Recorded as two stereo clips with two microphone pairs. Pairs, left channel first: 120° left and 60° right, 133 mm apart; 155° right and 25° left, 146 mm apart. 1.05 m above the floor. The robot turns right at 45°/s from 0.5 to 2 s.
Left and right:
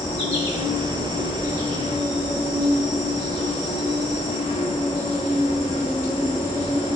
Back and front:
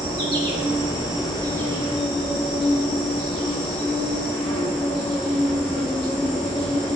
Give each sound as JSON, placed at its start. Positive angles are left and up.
{"t": 0.0, "sound": "an insect", "azimuth_deg": 85, "distance_m": 2.5}